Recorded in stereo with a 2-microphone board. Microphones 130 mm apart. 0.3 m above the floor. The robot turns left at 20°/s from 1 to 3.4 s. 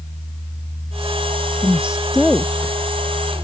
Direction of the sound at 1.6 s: 15° right (ahead or behind).